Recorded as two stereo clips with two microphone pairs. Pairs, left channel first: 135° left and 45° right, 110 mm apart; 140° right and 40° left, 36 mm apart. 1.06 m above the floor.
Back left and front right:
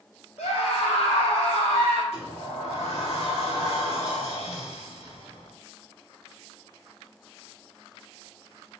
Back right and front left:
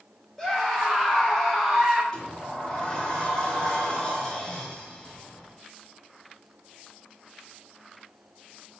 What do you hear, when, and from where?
0.4 s a scream: 140° left, 4 m; by 2.0 s 125° left, 4 m
2.1 s a sliding door: 155° left, 2.5 m